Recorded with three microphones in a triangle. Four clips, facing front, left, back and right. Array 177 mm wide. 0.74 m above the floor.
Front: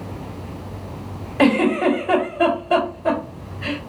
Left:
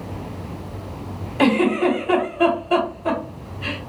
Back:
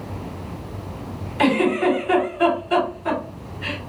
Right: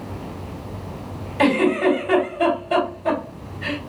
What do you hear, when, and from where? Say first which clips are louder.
1.4 s a giggle: even, front 2 dB; 5° left, 1.5 m